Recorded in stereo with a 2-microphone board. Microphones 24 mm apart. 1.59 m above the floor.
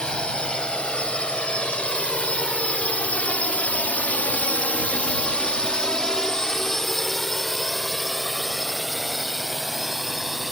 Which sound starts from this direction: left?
A drone, at 0.0 s.